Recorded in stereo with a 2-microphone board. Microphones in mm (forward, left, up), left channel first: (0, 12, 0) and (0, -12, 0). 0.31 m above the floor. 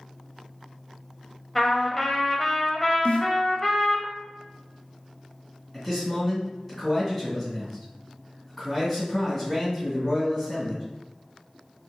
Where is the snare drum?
65° left (ahead or behind), 0.6 m.